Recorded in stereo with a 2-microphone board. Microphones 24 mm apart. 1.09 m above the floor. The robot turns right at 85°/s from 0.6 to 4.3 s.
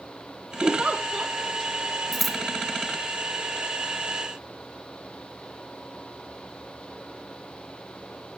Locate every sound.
0.6 s a giggle: 70° right, 3 m; by 1.3 s 5° right, 3 m
2.1 s scissors: 5° left (ahead or behind), 0.5 m; by 2.4 s 10° right (ahead or behind), 0.5 m